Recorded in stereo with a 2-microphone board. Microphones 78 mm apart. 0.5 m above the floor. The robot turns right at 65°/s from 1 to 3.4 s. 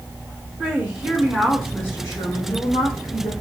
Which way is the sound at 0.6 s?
20° right.